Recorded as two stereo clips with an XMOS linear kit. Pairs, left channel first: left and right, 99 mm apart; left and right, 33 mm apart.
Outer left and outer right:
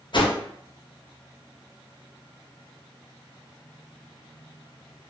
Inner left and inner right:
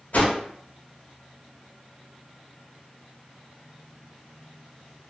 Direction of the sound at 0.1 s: 50° left (ahead or behind).